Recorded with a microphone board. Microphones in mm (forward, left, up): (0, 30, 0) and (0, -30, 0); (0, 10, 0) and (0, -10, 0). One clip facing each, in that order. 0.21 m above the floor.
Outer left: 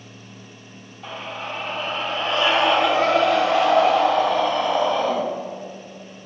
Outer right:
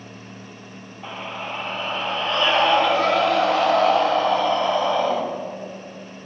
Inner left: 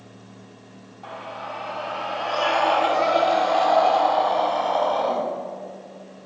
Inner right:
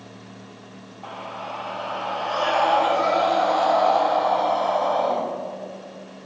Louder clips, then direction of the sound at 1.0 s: Even, even; 10° right (ahead or behind).